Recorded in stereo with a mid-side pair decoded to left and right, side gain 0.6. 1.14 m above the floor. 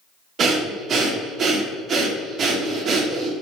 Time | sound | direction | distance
0.4 | breathing | 45° right | 1.2 m